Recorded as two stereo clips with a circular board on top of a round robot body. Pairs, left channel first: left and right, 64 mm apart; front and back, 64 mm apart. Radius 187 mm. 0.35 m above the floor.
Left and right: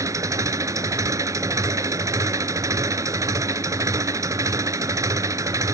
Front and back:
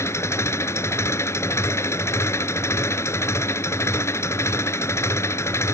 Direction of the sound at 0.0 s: 50° right.